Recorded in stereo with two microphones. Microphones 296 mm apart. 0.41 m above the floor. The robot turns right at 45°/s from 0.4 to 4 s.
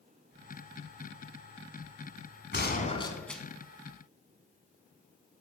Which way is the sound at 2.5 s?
140° left.